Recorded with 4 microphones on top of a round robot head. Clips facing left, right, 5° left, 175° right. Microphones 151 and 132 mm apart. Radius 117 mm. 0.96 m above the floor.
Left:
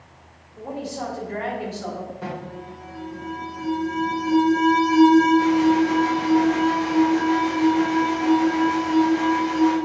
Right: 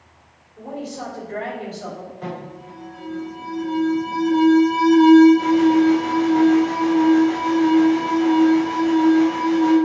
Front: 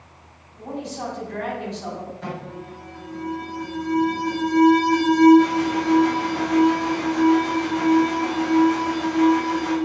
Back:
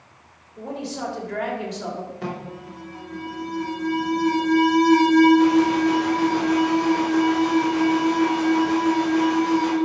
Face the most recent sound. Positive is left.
turn(degrees=170)